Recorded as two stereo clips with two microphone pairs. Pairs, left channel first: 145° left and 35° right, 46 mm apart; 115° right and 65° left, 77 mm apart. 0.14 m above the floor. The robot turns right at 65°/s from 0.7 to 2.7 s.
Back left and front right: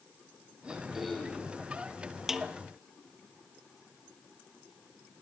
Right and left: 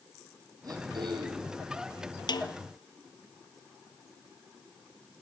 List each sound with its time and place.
0.6 s throat clearing: 35° left, 3.5 m; by 1.5 s 90° left, 3.5 m
2.3 s a snare drum: 115° right, 0.8 m; by 2.5 s 100° right, 0.8 m